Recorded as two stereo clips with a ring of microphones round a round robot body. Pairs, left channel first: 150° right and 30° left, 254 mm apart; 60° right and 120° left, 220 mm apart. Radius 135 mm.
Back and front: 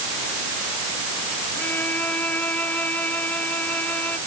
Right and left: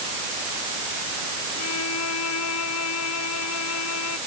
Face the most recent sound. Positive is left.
turn(degrees=-65)